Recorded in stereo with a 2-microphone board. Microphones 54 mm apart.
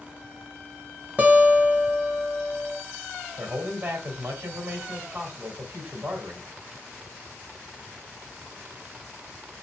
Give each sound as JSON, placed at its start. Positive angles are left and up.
{"t": 1.2, "sound": "a guitar", "side_deg": -30, "distance_m": 0.9}
{"t": 3.4, "sound": "a man speaking", "side_deg": -45, "distance_m": 1.6}